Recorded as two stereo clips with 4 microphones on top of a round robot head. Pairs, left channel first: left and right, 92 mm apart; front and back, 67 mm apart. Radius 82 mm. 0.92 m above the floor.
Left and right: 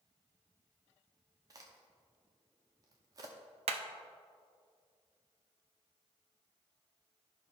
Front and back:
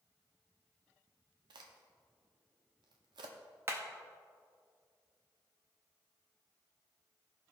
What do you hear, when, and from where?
1.5 s a crack: 150° right, 0.7 m
3.7 s hammering: 115° right, 0.5 m